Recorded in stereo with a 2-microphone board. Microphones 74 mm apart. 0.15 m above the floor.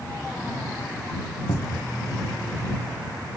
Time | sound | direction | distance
1.5 | a cupboard door | 80° left | ?